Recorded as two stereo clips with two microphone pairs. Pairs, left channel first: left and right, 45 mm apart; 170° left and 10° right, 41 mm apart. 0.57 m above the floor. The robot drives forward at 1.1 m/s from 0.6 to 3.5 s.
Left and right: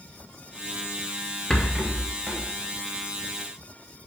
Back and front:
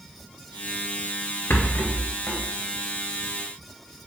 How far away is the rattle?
About 0.6 m.